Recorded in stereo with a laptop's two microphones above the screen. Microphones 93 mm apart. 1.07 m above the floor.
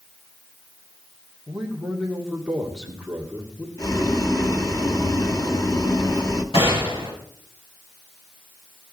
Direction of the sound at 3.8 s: 40° left (ahead or behind).